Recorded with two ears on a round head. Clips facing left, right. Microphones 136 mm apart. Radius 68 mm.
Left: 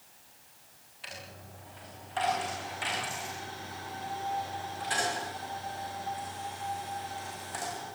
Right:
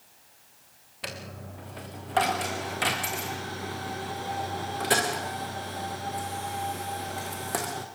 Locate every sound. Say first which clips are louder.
1.0 s a dropped coin: right 7 dB; 70° right (ahead or behind), 4 m